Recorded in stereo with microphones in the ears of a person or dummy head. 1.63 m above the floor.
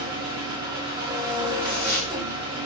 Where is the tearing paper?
5° left (ahead or behind), 1.0 m.